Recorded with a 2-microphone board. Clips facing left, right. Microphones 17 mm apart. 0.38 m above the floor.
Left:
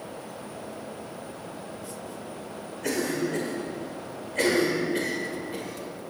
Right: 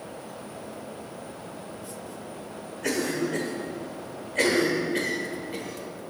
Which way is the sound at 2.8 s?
10° right (ahead or behind).